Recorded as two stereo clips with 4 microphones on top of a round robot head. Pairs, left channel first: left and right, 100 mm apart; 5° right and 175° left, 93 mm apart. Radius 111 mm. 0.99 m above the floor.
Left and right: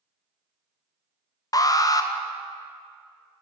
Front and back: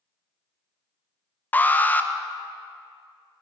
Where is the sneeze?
No sneeze in this recording.